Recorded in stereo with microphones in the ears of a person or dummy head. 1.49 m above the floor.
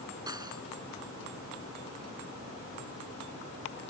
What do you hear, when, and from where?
0.3 s cutlery clinking: 25° right (ahead or behind)